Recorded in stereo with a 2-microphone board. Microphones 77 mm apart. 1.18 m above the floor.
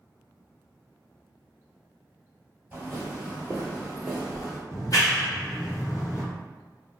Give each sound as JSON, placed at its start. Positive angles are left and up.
{"t": 2.7, "sound": "footsteps", "side_deg": -25, "distance_m": 1.3}
{"t": 4.7, "sound": "a clap", "side_deg": 45, "distance_m": 0.9}